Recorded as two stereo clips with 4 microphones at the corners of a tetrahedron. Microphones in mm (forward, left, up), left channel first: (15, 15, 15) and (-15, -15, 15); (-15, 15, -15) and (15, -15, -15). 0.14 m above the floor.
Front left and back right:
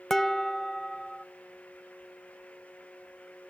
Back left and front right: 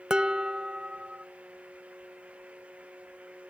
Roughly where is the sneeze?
No sneeze in this recording.